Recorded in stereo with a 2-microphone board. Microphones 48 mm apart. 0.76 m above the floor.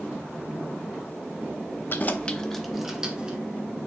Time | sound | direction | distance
1.9 | keys jangling | 45° left (ahead or behind) | 0.9 m